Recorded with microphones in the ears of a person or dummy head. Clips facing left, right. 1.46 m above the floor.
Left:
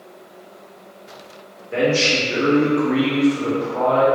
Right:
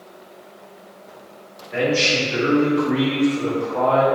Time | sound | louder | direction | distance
1.7 | a man speaking | left 2 dB | 65° left (ahead or behind) | 1.3 m